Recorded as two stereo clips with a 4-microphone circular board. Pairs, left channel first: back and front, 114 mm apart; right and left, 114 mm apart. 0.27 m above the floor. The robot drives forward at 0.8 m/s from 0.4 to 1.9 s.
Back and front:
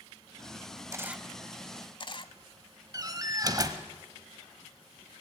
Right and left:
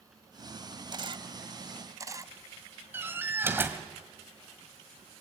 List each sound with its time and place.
0.9 s a camera shutter: 55° left, 0.6 m; by 2.3 s 145° left, 0.7 m
2.9 s a door slam: 35° left, 1.3 m